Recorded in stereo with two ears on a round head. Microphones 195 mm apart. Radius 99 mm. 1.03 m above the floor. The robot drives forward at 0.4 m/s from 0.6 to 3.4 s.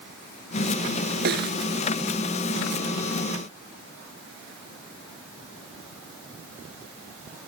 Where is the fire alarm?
No fire alarm in this recording.